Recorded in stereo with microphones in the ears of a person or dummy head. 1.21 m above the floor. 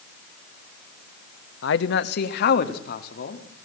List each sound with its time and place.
1.6 s a man speaking: 65° left (ahead or behind), 1.1 m; by 3.5 s 50° left (ahead or behind), 2.5 m